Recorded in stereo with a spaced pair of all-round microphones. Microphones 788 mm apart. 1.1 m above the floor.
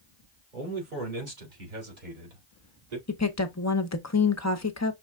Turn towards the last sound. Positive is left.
turn(degrees=20)  # may be behind; listen again after turning